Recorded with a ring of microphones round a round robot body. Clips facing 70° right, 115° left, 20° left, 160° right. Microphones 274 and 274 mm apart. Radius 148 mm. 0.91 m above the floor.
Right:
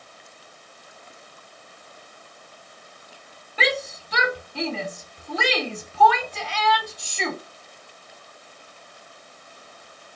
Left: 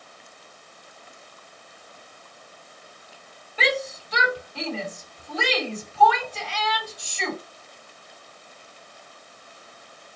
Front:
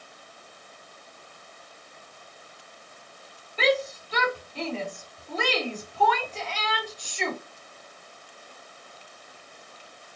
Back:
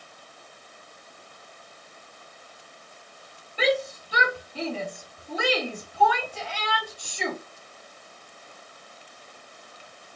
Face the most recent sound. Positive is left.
turn(degrees=-75)